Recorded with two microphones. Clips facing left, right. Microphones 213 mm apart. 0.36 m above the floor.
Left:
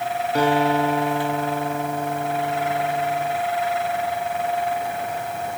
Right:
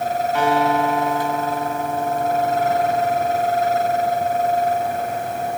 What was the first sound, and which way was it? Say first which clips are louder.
A guitar: left 1 dB; 40° left (ahead or behind).